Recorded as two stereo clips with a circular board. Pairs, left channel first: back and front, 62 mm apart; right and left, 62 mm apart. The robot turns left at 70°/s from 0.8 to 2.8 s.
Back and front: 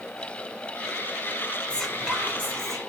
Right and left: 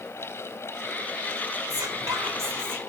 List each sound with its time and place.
1.7 s whispering: 110° left, 3.5 m; by 2.8 s 30° left, 3.5 m